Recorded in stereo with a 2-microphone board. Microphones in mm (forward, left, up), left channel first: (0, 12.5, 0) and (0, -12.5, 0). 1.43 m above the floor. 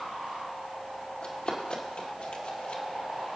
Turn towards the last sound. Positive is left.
turn(degrees=55)  # may be behind; listen again after turning